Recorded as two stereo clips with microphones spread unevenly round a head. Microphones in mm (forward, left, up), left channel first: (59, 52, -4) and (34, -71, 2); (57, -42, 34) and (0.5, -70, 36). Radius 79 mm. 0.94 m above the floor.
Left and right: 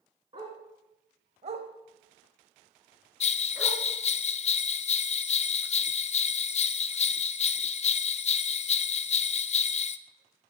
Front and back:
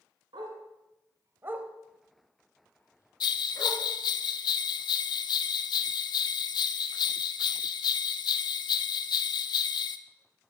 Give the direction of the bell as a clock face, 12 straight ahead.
11 o'clock.